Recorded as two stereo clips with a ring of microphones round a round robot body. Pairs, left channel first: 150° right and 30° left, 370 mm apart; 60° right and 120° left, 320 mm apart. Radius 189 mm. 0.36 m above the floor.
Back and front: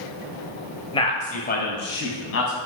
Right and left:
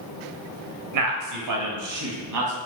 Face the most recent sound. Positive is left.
turn(degrees=160)